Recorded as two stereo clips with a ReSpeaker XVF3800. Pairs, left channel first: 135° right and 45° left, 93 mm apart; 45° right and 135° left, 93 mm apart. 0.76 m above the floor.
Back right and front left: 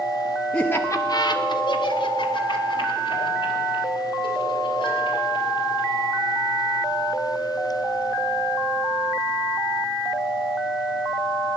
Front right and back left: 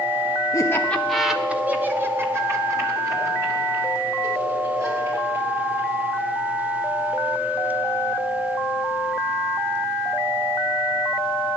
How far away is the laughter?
About 0.9 m.